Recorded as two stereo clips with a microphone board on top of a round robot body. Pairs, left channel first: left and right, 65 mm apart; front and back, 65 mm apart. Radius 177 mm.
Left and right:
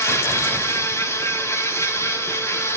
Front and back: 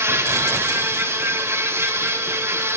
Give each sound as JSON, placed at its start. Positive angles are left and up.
{"t": 0.0, "sound": "an insect", "azimuth_deg": 130, "distance_m": 2.5}